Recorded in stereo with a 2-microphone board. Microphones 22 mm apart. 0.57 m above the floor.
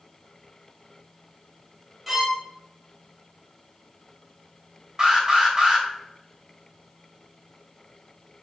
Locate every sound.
2.1 s a violin: 10° right (ahead or behind), 1.7 m
5.0 s an alarm: 25° right (ahead or behind), 3 m